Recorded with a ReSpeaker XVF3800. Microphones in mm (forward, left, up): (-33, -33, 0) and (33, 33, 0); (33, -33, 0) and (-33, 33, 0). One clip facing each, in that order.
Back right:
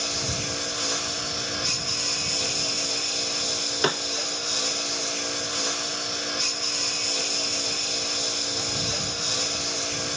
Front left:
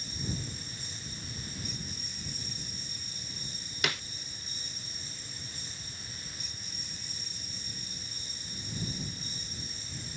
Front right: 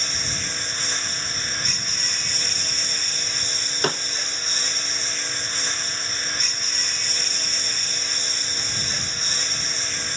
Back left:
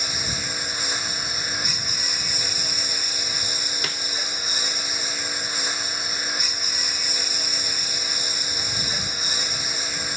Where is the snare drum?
90° right.